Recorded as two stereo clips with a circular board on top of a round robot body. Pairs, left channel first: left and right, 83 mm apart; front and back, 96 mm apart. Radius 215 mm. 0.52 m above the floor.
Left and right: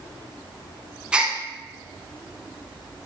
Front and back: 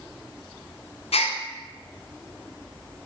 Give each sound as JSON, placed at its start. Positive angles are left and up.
{"t": 1.1, "sound": "a gasp", "azimuth_deg": -10, "distance_m": 0.7}